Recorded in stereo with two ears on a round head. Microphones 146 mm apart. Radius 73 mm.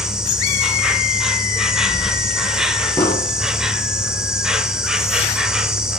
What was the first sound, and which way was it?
An insect, 5° right (ahead or behind).